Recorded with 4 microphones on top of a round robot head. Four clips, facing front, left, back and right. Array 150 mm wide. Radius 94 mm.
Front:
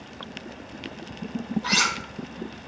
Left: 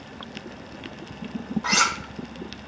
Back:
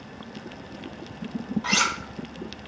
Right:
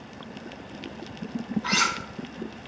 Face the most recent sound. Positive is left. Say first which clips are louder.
# left 4 dB, back 1 dB
turn(degrees=120)